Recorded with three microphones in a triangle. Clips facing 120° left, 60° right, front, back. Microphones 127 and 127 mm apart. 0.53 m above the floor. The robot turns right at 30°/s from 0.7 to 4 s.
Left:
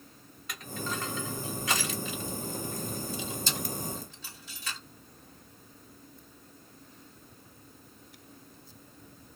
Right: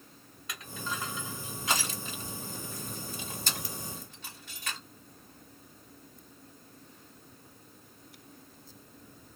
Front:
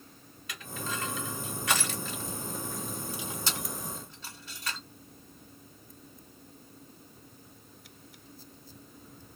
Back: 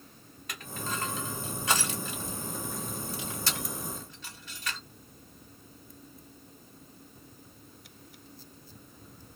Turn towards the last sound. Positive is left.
turn(degrees=-50)